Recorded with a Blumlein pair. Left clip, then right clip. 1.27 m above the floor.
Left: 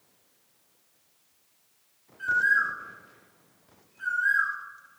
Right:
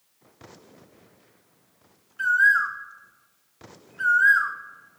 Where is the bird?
40° right, 1.2 m.